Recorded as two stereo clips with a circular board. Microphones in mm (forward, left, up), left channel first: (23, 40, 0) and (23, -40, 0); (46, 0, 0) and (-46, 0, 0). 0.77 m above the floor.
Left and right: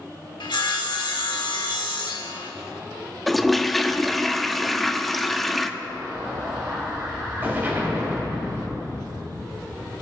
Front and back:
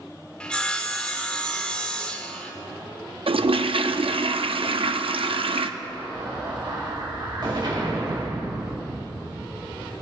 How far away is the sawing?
About 1.3 m.